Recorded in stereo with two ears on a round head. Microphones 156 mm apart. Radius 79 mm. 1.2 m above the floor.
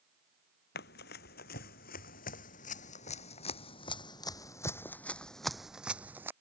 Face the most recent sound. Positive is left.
turn(degrees=-15)  # may be behind; listen again after turning